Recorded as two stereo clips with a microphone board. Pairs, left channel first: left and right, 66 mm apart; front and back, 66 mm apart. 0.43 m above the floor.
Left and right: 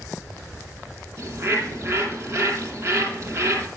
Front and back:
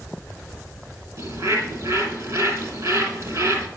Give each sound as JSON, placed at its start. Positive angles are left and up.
{"t": 1.2, "sound": "a bird", "azimuth_deg": -145, "distance_m": 2.5}